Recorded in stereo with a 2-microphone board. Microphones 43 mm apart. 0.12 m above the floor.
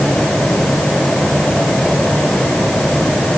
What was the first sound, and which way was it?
Only background noise.